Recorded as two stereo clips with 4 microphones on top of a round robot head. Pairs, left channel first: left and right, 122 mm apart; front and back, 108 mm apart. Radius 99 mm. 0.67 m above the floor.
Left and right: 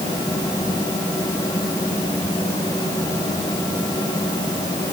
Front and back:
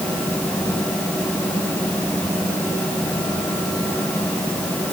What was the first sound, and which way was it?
Only background noise.